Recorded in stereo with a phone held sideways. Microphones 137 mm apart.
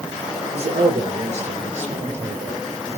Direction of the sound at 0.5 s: 55° right (ahead or behind).